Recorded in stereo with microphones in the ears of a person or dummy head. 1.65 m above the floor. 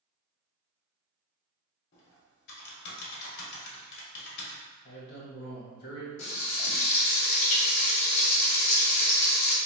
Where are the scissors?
No scissors in this recording.